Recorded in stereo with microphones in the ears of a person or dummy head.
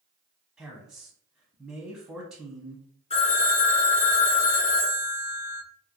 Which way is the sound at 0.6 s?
5° right (ahead or behind).